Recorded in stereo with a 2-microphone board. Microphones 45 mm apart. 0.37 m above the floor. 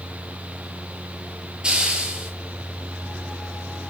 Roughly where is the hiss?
Right.